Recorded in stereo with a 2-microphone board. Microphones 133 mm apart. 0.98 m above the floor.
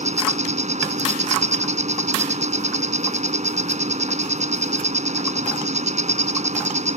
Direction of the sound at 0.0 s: 65° right (ahead or behind).